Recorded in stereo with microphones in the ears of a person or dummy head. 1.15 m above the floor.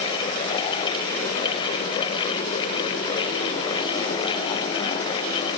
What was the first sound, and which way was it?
Only background noise.